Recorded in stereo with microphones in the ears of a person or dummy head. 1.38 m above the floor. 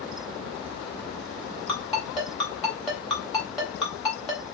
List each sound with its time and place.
1.7 s a ringtone: centre (ahead or behind), 1.4 m